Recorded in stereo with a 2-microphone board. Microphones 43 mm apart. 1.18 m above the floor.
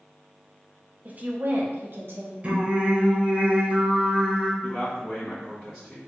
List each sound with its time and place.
1.1 s a woman speaking: 35° right (ahead or behind), 0.7 m; by 2.3 s 65° right (ahead or behind), 1.3 m
2.4 s singing: 30° right (ahead or behind), 1.0 m
4.6 s a man speaking: 10° left (ahead or behind), 1.3 m